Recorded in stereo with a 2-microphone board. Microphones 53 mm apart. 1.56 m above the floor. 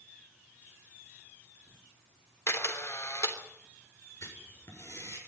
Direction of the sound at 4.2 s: 65° left (ahead or behind).